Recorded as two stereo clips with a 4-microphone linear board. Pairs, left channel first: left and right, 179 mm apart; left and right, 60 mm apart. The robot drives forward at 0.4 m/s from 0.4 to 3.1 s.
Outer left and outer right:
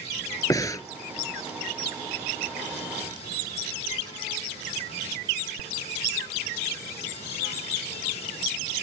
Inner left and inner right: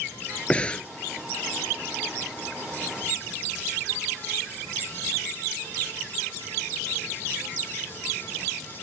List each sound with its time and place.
0.5 s breathing: 20° left (ahead or behind)